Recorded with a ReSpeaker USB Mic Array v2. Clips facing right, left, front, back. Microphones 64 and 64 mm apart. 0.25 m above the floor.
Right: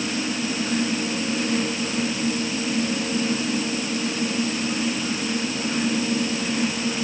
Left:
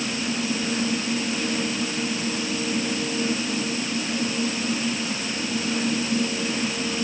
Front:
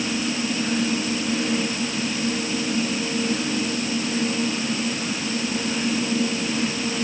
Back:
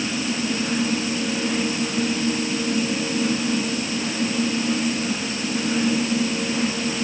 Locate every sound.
Only background noise.